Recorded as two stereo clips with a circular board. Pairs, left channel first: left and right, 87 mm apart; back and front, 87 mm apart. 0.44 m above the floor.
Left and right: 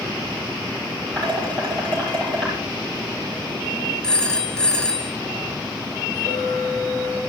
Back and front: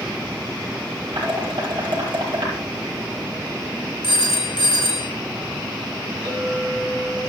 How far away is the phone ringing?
About 1.7 m.